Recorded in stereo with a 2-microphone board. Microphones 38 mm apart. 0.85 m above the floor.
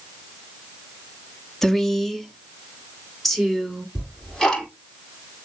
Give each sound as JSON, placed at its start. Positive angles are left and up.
{"t": 1.6, "sound": "a woman speaking", "side_deg": 10, "distance_m": 1.1}
{"t": 4.0, "sound": "ticking", "side_deg": 10, "distance_m": 5.0}